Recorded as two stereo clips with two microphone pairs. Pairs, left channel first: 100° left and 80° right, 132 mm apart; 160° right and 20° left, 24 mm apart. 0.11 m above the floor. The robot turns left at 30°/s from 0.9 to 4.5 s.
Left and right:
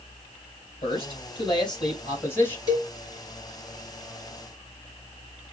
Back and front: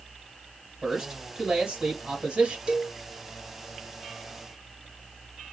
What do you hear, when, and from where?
0.8 s a man speaking: 80° left, 1.6 m; by 2.6 s 30° left, 1.6 m
2.7 s a cowbell: 50° left, 2.0 m; by 2.9 s 45° left, 2.0 m